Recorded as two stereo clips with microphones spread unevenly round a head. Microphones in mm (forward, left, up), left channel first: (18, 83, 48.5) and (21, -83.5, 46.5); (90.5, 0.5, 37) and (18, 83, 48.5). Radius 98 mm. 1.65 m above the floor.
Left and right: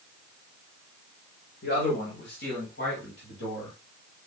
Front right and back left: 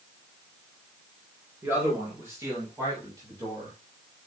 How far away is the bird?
I don't hear a bird.